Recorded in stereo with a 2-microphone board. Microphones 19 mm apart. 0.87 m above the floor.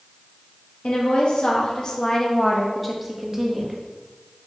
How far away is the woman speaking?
About 1.0 m.